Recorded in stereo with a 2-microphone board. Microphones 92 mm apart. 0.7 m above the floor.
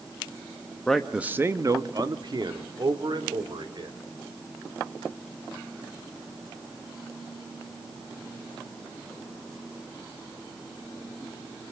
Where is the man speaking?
10° left (ahead or behind), 1.0 m; by 4.0 s 55° right (ahead or behind), 4 m.